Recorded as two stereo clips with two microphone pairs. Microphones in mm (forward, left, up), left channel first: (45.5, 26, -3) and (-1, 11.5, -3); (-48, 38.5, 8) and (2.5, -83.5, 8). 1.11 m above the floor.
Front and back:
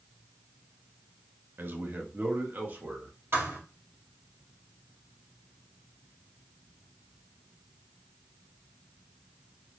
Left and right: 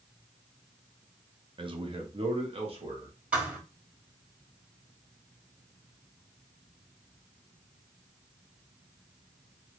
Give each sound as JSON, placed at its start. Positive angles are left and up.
{"t": 1.6, "sound": "a man speaking", "azimuth_deg": -120, "distance_m": 0.6}
{"t": 3.3, "sound": "a thud", "azimuth_deg": -150, "distance_m": 1.9}